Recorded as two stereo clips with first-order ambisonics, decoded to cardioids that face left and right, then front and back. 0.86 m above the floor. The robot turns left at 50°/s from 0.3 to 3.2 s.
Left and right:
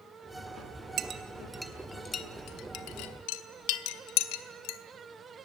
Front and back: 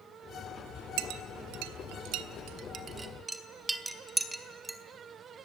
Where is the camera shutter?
I don't hear a camera shutter.